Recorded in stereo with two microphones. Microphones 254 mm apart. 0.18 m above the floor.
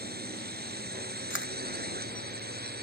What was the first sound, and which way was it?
A drone, 40° right (ahead or behind).